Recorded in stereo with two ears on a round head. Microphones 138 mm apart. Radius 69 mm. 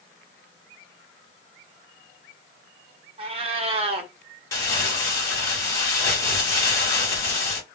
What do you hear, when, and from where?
3.2 s a cat meowing: 40° right (ahead or behind), 0.5 m
4.5 s crumpling: 20° left (ahead or behind), 0.9 m